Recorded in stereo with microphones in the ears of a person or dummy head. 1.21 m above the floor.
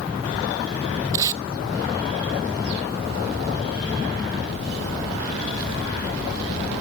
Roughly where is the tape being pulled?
Centre.